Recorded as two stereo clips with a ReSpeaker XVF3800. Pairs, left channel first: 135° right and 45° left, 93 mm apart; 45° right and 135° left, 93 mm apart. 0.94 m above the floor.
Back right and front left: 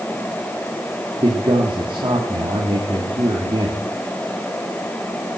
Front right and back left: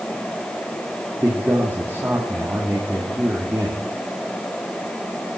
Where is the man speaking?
70° left, 2 m.